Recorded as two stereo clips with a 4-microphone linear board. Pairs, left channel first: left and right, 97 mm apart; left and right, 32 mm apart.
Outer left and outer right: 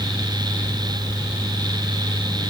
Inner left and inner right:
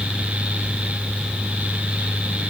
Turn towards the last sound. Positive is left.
No sound to turn to.